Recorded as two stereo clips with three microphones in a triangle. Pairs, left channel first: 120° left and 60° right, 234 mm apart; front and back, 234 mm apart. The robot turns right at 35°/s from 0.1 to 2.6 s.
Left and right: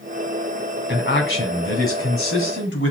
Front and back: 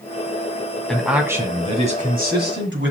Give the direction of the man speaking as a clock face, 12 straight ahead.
9 o'clock.